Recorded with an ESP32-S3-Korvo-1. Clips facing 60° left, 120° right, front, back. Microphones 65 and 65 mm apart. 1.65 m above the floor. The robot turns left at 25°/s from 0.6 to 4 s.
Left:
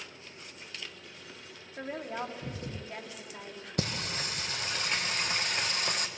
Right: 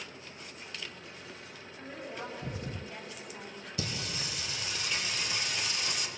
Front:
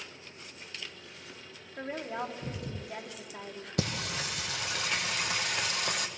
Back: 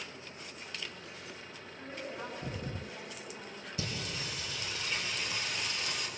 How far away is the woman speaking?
About 3.5 m.